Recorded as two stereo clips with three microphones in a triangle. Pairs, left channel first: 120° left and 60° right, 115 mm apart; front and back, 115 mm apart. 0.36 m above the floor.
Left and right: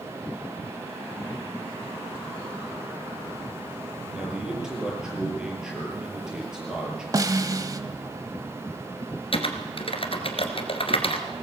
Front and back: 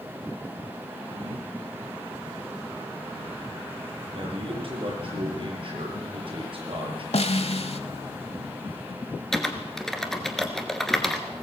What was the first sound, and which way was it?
A man speaking, 145° right.